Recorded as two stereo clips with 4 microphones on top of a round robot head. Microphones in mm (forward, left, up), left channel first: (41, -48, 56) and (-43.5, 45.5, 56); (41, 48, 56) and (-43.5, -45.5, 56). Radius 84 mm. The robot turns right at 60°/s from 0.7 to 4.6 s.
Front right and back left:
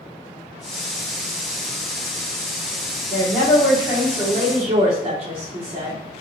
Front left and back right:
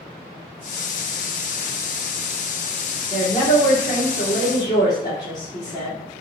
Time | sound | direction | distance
3.1 | a woman speaking | 5° right | 2.0 m